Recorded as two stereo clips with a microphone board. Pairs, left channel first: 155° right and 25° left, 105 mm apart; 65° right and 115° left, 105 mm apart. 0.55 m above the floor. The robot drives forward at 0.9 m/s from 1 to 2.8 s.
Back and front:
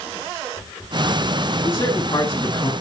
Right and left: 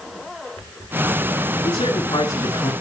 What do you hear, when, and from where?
1.6 s a man speaking: 95° right, 4.5 m; by 2.7 s 105° right, 4.5 m